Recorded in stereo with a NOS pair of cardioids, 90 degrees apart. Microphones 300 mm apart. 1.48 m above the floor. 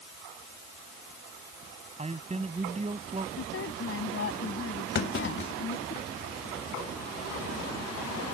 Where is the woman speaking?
45° left.